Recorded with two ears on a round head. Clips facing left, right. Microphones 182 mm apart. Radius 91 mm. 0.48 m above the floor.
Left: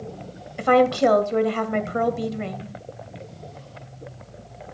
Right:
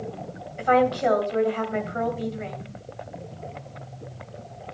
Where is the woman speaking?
55° left (ahead or behind), 2 m.